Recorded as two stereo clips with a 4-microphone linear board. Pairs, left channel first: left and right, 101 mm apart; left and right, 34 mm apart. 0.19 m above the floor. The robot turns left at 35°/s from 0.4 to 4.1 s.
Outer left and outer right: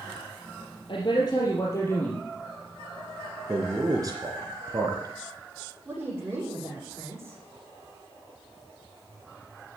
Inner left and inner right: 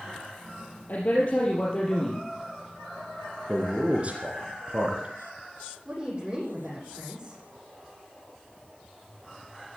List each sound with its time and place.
0.9 s a man speaking: 60° left, 4 m; by 2.2 s 10° left, 4 m
3.5 s a man speaking: 20° right (ahead or behind), 3 m; by 5.1 s 40° right (ahead or behind), 3 m
5.8 s a woman speaking: 20° right (ahead or behind), 8.5 m